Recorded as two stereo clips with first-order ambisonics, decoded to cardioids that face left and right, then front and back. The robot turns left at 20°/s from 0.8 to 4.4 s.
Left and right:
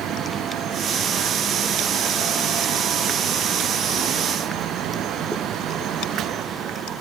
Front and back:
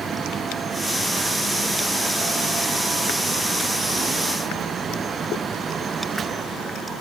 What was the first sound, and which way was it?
Only background noise.